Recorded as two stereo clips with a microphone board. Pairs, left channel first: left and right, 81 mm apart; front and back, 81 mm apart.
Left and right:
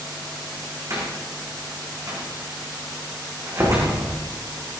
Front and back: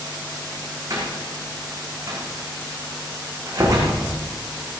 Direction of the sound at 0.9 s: 135° right.